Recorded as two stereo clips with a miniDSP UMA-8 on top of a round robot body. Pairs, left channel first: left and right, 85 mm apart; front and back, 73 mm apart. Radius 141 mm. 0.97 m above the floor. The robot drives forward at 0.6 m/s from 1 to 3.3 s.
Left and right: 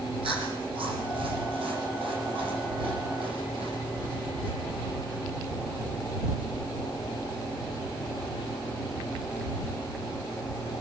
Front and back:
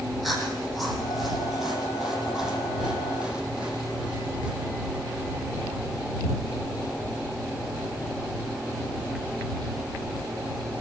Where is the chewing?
90° right, 7.5 m; by 4.5 s 100° right, 7.5 m.